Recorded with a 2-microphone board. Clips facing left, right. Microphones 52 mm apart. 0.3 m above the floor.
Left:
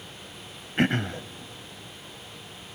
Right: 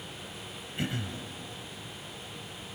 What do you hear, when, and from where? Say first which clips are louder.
0.8 s throat clearing: left 10 dB; 55° left (ahead or behind), 0.5 m